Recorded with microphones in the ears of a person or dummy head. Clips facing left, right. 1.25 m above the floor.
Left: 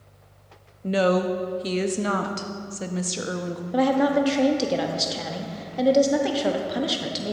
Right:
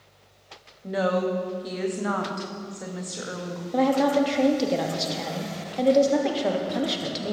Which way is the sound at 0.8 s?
35° left (ahead or behind).